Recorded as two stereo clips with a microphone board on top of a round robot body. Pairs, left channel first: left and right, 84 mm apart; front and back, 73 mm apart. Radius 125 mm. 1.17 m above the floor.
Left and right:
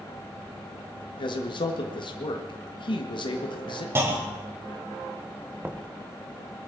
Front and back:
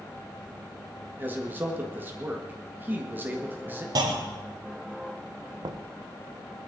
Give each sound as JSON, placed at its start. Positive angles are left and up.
{"t": 1.2, "sound": "a man speaking", "azimuth_deg": 115, "distance_m": 1.7}
{"t": 4.0, "sound": "a clunk", "azimuth_deg": -150, "distance_m": 1.6}
{"t": 5.6, "sound": "knocking", "azimuth_deg": -160, "distance_m": 1.1}